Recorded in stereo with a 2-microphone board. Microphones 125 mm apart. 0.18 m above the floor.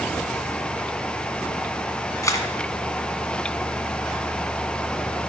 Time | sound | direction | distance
2.2 | a camera shutter | 25° left (ahead or behind) | 1.6 m